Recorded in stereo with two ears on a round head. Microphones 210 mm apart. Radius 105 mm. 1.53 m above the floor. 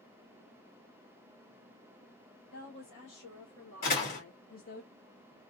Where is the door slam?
40° left (ahead or behind), 2.5 m.